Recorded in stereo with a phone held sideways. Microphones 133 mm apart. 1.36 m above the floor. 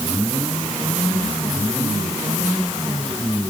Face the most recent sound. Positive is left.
No sound to turn to.